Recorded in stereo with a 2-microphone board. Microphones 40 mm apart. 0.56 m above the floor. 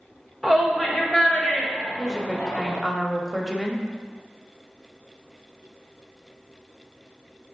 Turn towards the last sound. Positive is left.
turn(degrees=5)  # may be behind; listen again after turning